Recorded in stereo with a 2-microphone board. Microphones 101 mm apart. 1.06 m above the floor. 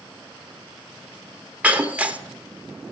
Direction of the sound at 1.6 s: 15° right (ahead or behind).